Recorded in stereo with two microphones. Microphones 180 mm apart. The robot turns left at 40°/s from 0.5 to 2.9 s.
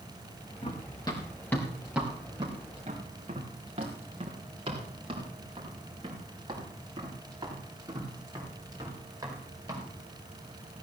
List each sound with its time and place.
0.6 s running footsteps: 35° left (ahead or behind), 3 m; by 9.8 s 15° right (ahead or behind), 7 m